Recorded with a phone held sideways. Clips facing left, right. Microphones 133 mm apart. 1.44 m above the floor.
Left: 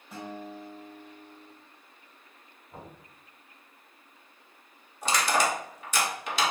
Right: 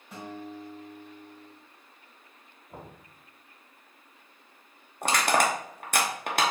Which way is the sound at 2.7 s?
45° right (ahead or behind).